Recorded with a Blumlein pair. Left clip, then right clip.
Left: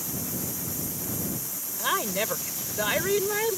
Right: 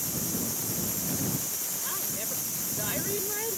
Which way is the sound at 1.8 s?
35° left.